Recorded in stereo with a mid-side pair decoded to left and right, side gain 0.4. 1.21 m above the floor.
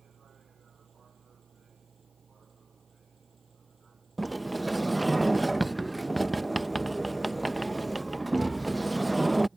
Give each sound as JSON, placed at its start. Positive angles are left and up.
{"t": 0.0, "sound": "a vehicle", "azimuth_deg": -50}
{"t": 4.2, "sound": "a sliding door", "azimuth_deg": -15}